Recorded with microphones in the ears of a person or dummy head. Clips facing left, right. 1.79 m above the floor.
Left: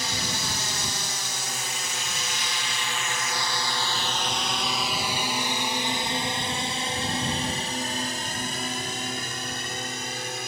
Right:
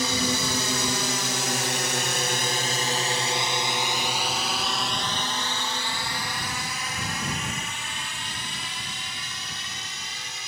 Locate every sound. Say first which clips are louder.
0.0 s a drone: right 7 dB; 65° right (ahead or behind); by 10.5 s 45° left (ahead or behind)